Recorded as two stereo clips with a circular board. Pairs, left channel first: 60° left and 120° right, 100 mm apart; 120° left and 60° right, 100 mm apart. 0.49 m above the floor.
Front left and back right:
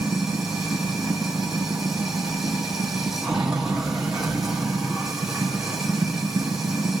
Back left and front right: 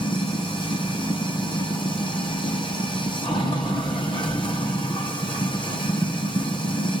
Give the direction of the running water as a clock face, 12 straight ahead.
7 o'clock.